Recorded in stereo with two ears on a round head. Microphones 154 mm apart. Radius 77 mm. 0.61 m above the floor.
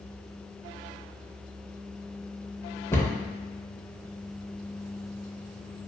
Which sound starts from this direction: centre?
A cupboard door, at 2.9 s.